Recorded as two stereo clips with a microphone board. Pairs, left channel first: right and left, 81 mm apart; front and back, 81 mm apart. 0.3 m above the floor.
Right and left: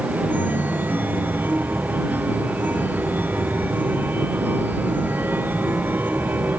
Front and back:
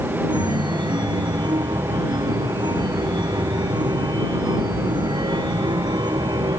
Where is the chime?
160° left.